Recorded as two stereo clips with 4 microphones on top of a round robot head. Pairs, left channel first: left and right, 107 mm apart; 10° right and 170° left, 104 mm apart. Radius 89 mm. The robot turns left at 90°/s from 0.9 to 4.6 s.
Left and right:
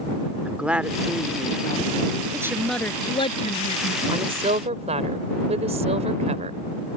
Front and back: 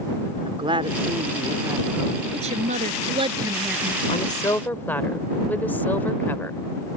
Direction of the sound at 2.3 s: 150° right.